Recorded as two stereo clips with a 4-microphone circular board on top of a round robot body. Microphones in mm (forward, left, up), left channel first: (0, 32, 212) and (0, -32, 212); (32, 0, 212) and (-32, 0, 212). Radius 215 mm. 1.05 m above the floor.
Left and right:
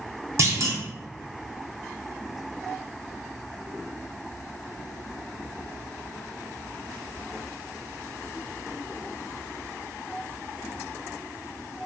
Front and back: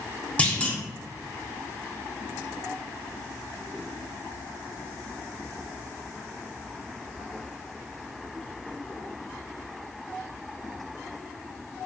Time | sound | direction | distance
0.4 | a clunk | 65° right | 1.0 m